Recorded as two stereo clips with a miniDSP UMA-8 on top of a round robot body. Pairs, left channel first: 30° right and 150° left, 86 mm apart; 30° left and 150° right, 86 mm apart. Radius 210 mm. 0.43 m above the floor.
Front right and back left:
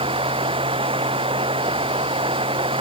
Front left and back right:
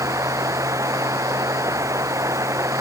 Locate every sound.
0.0 s running water: 155° left